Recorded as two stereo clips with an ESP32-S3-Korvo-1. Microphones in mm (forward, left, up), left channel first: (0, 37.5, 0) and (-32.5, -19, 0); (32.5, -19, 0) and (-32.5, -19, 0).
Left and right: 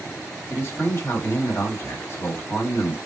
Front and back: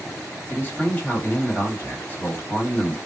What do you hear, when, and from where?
0.5 s a man speaking: 40° left, 1.4 m